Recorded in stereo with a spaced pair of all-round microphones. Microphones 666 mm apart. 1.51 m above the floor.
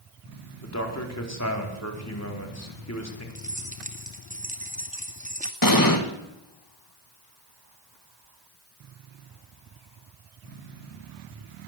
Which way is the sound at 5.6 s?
30° left (ahead or behind).